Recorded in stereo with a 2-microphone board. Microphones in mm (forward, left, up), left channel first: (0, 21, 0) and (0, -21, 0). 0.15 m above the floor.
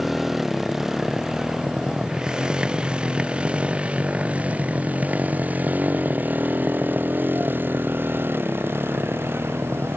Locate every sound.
0.0 s a motorcycle: 5° right (ahead or behind); by 10.0 s 65° right (ahead or behind)